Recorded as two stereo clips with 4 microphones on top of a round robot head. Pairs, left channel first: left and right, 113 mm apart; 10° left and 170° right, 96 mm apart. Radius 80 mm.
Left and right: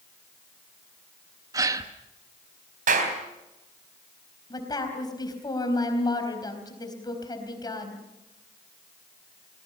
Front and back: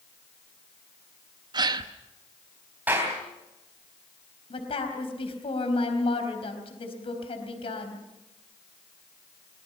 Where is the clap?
90° right, 3.5 m.